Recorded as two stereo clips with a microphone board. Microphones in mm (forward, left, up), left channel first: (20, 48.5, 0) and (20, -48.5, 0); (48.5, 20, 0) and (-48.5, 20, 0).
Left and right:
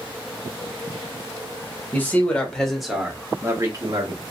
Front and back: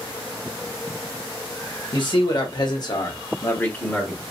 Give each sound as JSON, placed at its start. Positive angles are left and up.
{"t": 1.9, "sound": "a man speaking", "azimuth_deg": 25, "distance_m": 1.3}